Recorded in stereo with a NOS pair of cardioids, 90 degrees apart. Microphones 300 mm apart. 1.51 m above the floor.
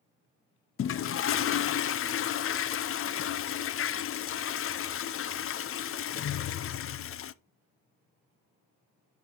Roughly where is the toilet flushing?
Ahead left.